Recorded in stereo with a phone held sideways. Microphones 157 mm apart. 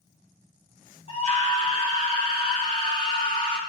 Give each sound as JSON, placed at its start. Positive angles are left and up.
{"t": 1.1, "sound": "a scream", "side_deg": 45, "distance_m": 4.5}